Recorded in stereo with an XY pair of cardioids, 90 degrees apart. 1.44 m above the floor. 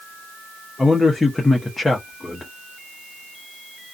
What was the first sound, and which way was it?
A man speaking, 20° left.